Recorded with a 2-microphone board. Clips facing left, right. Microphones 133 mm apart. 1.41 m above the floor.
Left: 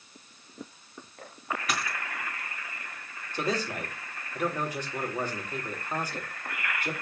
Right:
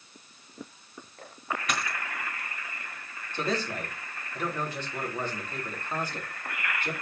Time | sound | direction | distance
1.7 | a dropped coin | 5° left (ahead or behind) | 3.5 m
3.3 | a man speaking | 10° left (ahead or behind) | 3.5 m